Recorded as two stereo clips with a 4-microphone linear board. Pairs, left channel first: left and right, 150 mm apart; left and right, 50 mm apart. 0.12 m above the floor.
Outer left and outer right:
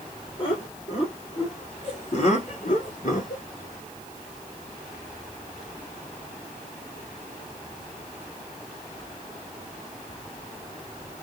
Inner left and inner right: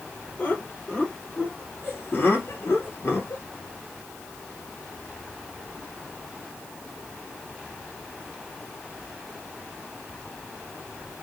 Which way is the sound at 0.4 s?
35° left (ahead or behind).